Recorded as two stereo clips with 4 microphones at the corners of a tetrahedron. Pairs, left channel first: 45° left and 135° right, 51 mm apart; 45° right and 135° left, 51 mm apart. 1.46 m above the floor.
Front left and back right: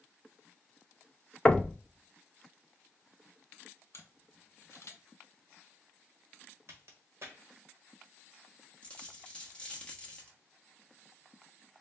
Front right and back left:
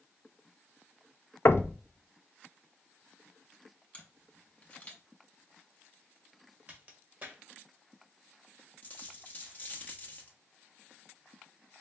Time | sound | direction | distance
1.4 | knocking | 20° right | 0.5 m
3.9 | a camera shutter | 15° left | 1.7 m
6.7 | a crack | 170° right | 1.4 m
8.8 | a dropped coin | 10° right | 1.1 m